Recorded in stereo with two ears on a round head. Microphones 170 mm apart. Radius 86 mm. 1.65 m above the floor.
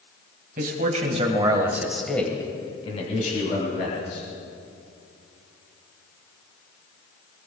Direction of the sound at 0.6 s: 50° right (ahead or behind).